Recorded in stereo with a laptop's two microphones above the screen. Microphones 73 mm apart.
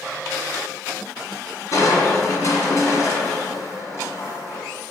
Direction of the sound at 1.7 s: 45° left (ahead or behind).